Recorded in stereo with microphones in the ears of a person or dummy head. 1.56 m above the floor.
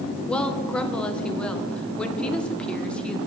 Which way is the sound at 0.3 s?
5° left (ahead or behind).